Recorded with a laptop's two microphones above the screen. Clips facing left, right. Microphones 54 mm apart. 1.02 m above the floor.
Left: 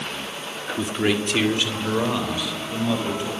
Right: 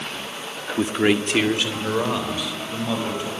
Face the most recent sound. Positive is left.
turn(degrees=0)  # may be behind; listen again after turning